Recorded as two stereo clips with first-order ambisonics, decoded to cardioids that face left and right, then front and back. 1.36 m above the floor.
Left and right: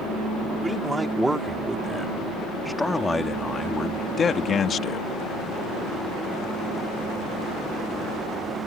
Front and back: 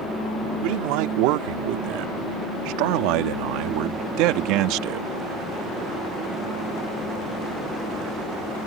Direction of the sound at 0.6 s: 170° right.